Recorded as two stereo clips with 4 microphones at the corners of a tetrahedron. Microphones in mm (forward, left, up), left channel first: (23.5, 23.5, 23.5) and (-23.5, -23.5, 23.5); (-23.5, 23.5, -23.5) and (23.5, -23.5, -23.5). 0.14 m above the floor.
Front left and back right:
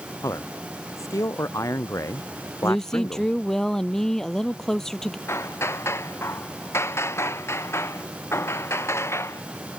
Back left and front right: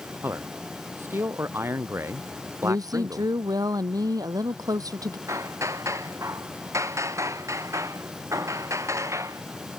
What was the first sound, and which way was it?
A man speaking, 10° left.